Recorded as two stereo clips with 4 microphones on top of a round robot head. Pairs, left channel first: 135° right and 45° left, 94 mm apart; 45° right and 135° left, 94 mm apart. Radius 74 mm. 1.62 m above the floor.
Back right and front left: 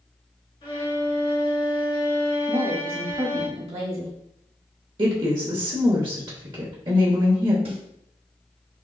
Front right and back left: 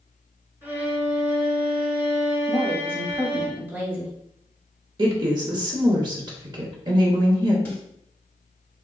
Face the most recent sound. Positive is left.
turn(degrees=25)